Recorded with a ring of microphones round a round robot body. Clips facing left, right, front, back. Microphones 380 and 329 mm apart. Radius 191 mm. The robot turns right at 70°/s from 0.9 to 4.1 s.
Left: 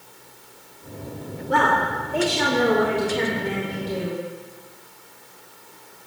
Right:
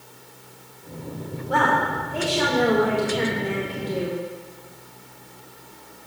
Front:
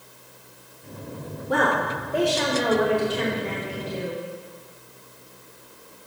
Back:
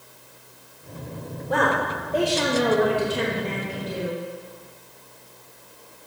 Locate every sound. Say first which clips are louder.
1.5 s a woman speaking: left 1 dB, even; 30° left, 2.5 m; by 4.2 s 145° right, 2.5 m